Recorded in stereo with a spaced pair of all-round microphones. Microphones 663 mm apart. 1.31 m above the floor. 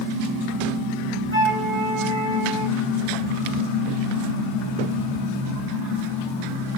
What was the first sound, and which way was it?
A flute, 20° right (ahead or behind).